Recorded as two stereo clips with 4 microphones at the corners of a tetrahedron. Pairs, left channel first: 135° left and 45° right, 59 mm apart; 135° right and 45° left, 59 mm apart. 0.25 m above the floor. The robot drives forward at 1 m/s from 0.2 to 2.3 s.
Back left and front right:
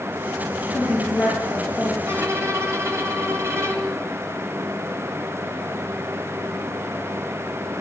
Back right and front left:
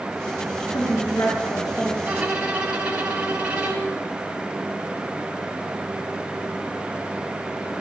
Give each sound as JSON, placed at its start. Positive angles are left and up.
{"t": 0.7, "sound": "a woman speaking", "azimuth_deg": -130, "distance_m": 4.5}
{"t": 2.1, "sound": "a violin", "azimuth_deg": -20, "distance_m": 2.0}